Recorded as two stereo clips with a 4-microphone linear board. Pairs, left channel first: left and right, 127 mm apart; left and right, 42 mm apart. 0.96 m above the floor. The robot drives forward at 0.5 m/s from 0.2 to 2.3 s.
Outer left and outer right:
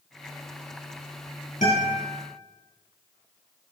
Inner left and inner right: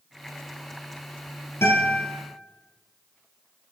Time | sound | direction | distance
1.6 | a guitar | 75° left (ahead or behind) | 2.5 m